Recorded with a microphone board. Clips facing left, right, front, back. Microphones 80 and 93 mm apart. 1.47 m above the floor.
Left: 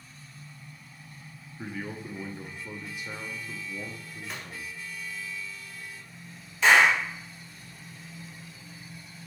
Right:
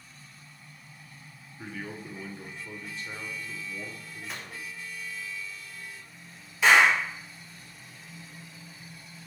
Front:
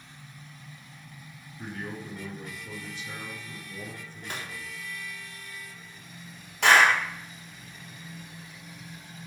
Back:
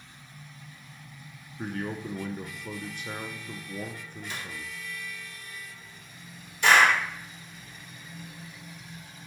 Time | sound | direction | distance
1.6 | a man speaking | 165° left | 0.6 m
4.2 | a gunshot | straight ahead | 0.8 m
6.6 | a clap | 5° right | 2.0 m